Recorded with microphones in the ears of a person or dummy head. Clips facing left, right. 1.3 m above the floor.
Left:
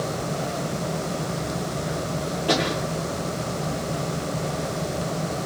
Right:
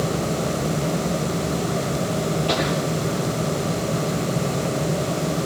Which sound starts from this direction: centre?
A pop, at 2.5 s.